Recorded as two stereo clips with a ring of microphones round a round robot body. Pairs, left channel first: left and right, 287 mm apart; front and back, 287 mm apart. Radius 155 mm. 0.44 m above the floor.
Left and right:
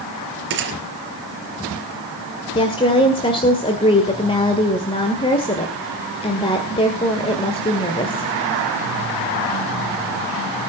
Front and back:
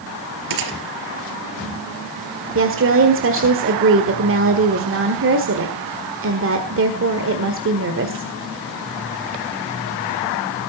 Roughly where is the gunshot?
Behind right.